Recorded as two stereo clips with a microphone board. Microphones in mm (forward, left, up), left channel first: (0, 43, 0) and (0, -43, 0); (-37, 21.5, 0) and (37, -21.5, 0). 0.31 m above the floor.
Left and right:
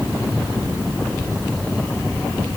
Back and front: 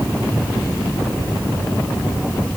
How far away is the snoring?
I don't hear snoring.